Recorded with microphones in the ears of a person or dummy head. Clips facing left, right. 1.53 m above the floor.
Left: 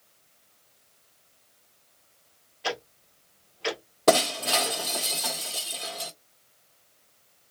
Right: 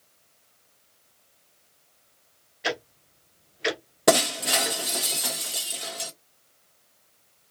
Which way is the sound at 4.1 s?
20° right (ahead or behind).